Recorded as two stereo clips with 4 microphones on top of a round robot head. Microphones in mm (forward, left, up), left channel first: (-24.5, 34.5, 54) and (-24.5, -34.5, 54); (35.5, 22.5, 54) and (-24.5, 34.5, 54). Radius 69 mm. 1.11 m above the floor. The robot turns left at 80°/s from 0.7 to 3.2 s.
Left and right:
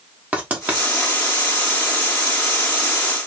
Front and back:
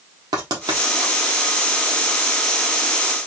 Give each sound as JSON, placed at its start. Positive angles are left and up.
{"t": 0.3, "sound": "writing", "azimuth_deg": -155, "distance_m": 1.3}